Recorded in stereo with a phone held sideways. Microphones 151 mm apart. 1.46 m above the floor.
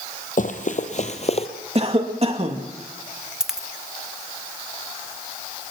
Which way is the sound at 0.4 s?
60° left (ahead or behind).